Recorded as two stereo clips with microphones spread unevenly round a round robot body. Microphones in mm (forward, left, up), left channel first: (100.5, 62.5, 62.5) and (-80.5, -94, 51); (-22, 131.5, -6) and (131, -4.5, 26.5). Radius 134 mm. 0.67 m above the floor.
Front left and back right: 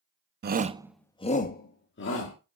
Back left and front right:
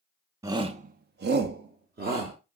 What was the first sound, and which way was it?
A shout, 125° right.